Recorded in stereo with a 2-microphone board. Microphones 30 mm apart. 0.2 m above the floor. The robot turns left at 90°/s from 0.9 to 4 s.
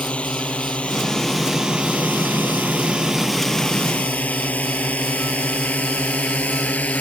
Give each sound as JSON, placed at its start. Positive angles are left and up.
{"t": 0.0, "sound": "a drone", "side_deg": 40}